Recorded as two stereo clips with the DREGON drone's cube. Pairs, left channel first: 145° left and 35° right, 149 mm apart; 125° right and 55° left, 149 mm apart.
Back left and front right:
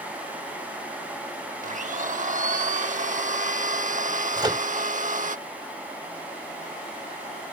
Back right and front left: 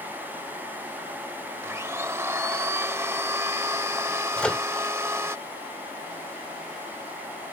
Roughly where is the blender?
Ahead.